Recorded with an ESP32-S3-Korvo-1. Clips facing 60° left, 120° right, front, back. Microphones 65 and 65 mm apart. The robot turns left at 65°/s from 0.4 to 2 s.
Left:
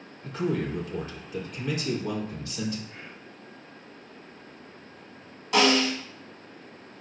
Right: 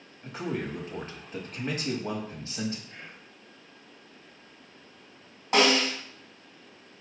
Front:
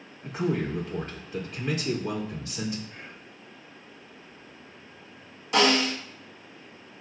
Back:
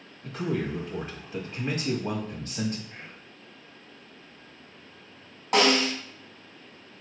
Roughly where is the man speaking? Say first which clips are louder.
Left 4 dB, front 2 dB; ahead right.